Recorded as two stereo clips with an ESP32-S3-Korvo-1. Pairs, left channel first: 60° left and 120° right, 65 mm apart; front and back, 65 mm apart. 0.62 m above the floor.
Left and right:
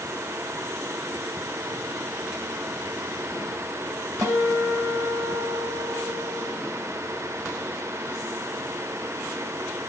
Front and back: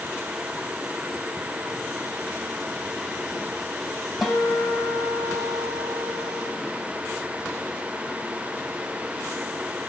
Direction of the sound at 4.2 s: 95° right.